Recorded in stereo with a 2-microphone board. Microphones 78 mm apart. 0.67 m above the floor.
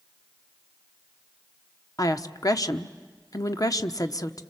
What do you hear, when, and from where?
2.0 s a woman speaking: 55° left (ahead or behind), 1.1 m